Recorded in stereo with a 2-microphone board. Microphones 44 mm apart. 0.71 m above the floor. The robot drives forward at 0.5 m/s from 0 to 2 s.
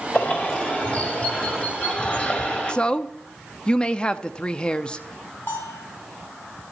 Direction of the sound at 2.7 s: 20° left (ahead or behind).